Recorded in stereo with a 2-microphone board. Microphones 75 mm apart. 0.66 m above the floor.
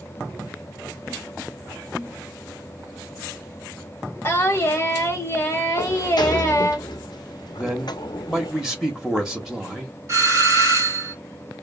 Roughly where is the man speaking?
Centre.